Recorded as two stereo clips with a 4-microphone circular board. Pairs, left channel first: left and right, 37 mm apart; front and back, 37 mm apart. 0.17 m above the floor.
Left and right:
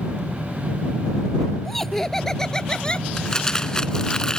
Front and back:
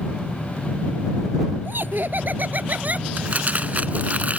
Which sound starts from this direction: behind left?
Crumpling, at 3.2 s.